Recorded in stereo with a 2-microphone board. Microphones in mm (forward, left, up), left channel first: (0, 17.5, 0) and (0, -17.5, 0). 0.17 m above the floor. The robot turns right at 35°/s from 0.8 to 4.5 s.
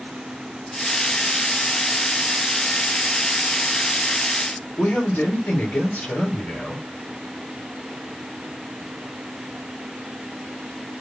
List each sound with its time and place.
4.8 s a man speaking: 45° left (ahead or behind), 3 m